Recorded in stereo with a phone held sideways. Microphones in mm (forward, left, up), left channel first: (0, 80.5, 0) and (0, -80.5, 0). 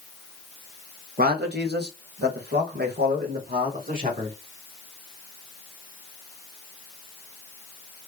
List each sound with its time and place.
1.2 s a man speaking: 60° right (ahead or behind), 0.9 m; by 4.3 s 55° right (ahead or behind), 2.0 m